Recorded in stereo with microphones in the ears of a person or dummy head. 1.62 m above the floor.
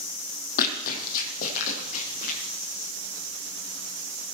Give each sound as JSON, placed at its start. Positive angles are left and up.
{"t": 0.6, "sound": "running footsteps", "side_deg": 50, "distance_m": 3.5}